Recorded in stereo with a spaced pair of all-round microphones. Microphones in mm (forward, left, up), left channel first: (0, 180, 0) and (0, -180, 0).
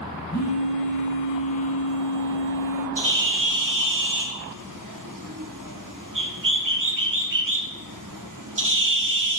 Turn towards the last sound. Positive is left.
turn(degrees=-60)  # may be behind; listen again after turning